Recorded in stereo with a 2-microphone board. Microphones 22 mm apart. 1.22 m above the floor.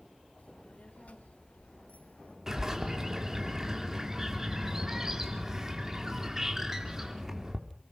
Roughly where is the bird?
Right.